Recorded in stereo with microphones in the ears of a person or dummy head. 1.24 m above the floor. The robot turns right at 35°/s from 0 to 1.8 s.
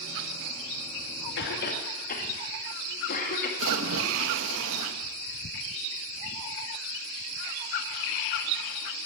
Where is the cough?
60° left (ahead or behind), 2.5 m; by 3.5 s 50° left (ahead or behind), 2.5 m.